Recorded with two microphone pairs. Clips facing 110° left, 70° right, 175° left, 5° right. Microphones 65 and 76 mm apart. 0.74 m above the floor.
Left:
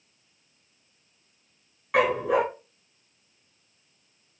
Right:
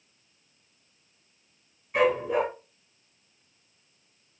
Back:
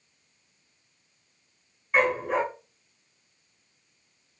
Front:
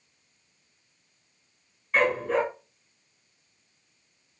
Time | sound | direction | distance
1.9 | a dog barking | 100° left | 3 m